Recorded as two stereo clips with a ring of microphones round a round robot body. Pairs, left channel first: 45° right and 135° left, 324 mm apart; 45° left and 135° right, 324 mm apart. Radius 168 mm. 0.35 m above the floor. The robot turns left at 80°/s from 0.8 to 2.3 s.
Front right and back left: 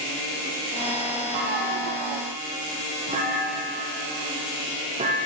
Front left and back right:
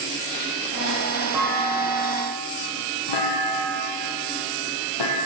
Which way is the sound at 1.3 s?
140° left.